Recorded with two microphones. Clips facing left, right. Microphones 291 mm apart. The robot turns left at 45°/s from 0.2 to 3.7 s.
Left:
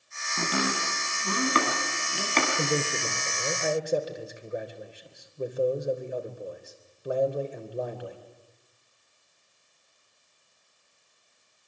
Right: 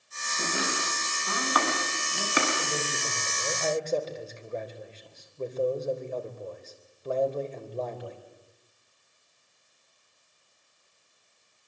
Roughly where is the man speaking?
Ahead left.